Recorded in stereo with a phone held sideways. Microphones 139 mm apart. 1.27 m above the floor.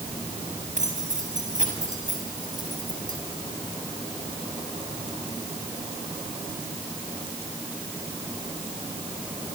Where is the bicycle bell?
No bicycle bell in this recording.